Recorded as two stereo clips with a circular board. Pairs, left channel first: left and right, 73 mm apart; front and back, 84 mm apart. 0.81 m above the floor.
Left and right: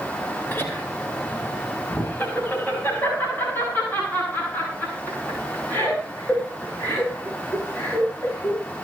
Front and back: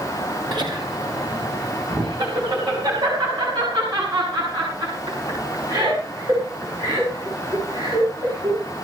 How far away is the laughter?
About 2.5 m.